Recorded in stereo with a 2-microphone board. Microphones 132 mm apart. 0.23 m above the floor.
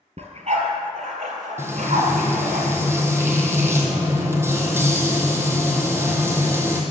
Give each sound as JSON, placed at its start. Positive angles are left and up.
{"t": 0.2, "sound": "a dog barking", "side_deg": -60, "distance_m": 1.9}
{"t": 1.6, "sound": "frying", "side_deg": -20, "distance_m": 1.7}